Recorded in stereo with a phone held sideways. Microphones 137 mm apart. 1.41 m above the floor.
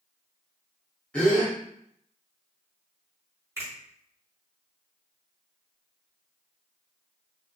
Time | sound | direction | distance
1.1 | a gasp | 5° left (ahead or behind) | 1.0 m
3.6 | a finger snap | 20° right (ahead or behind) | 1.9 m